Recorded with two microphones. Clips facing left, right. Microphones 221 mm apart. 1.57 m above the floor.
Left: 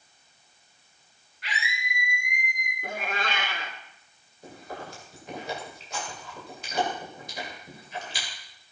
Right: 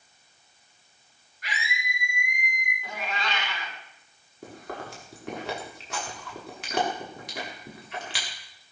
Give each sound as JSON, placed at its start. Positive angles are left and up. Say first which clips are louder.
{"t": 1.4, "sound": "a scream", "louder": "even", "side_deg": -45, "distance_m": 10.0}
{"t": 2.8, "sound": "a cat meowing", "louder": "left 2 dB", "side_deg": 50, "distance_m": 2.5}
{"t": 4.4, "sound": "chewing", "louder": "right 2 dB", "side_deg": -85, "distance_m": 4.5}